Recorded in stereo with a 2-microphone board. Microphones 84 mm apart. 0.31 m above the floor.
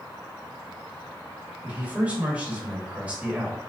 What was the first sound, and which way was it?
A man speaking, 15° right (ahead or behind).